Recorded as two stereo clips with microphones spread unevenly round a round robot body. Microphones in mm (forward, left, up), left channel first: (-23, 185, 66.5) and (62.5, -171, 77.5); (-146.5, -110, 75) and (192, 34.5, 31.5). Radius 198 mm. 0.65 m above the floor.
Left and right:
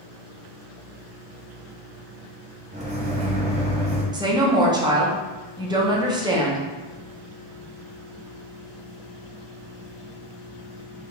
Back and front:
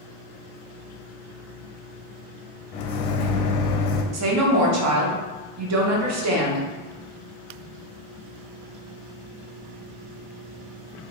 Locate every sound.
2.7 s a microwave: 145° right, 0.5 m
4.1 s a woman speaking: straight ahead, 0.8 m